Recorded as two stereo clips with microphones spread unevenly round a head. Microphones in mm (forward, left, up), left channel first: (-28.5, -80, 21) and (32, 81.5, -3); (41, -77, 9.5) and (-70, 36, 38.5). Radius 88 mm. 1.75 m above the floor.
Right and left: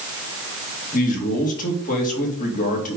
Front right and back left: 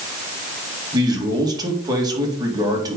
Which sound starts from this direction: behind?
A man speaking, at 0.9 s.